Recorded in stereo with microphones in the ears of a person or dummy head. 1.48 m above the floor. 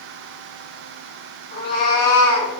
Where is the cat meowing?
30° left (ahead or behind), 1.6 m; by 2.5 s 5° right (ahead or behind), 1.9 m.